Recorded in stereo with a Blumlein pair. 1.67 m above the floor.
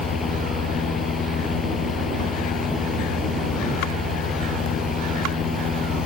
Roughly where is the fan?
Ahead.